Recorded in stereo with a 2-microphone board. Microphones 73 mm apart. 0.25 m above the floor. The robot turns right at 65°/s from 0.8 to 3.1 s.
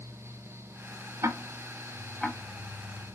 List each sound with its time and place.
1.2 s ticking: 50° right (ahead or behind), 0.8 m; by 2.4 s 15° left (ahead or behind), 0.8 m